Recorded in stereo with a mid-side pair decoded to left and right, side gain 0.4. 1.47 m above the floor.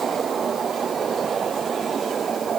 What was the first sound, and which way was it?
Only background noise.